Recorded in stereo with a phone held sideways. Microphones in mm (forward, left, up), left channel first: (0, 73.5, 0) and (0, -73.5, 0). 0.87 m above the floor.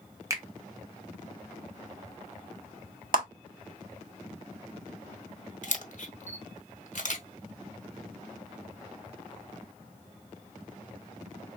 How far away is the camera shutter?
About 0.8 m.